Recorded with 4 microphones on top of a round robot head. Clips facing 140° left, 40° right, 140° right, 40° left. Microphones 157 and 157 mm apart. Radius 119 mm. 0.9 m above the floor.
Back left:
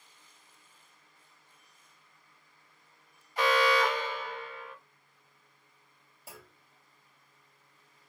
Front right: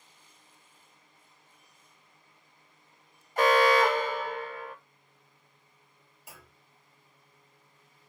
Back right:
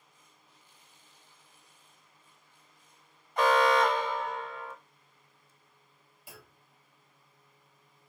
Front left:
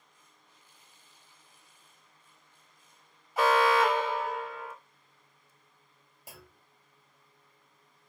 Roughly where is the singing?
I don't hear singing.